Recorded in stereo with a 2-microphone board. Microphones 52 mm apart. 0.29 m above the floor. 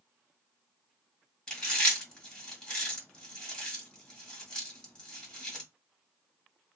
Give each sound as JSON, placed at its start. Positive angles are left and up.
{"t": 1.5, "sound": "chewing", "side_deg": 20, "distance_m": 1.4}